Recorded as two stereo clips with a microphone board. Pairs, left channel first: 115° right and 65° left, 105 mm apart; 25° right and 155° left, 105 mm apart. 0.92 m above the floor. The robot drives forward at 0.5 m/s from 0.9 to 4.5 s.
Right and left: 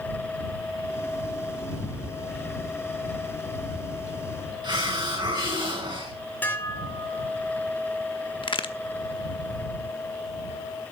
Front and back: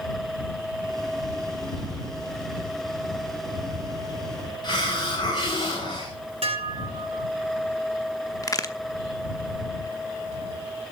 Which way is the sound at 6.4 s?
175° left.